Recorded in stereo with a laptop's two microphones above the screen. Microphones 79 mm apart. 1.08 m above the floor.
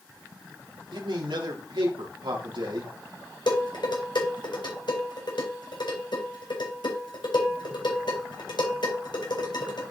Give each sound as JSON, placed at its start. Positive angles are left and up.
{"t": 0.9, "sound": "a man speaking", "side_deg": -80, "distance_m": 3.0}
{"t": 3.5, "sound": "dishes clattering", "side_deg": 70, "distance_m": 3.5}